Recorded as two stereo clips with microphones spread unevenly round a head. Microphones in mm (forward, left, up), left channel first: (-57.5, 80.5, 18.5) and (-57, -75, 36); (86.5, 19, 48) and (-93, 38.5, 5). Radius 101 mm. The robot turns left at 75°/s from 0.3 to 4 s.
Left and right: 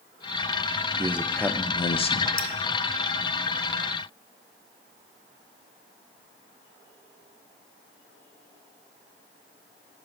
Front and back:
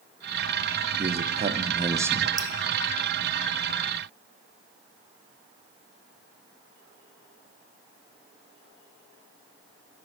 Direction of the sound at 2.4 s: 110° left.